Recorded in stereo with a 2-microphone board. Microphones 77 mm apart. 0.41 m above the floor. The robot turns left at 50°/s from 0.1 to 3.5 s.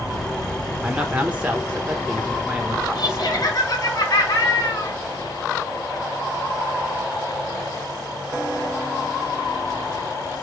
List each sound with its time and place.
0.8 s a man speaking: 10° right (ahead or behind), 1.2 m
3.0 s laughter: 70° left (ahead or behind), 3.5 m; by 5.0 s 45° left (ahead or behind), 3.5 m